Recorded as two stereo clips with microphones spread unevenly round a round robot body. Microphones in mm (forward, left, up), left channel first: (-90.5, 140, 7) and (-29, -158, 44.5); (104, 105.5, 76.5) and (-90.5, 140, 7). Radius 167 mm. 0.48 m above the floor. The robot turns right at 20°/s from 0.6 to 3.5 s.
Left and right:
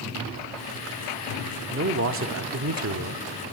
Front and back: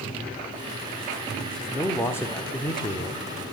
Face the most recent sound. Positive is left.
turn(degrees=-80)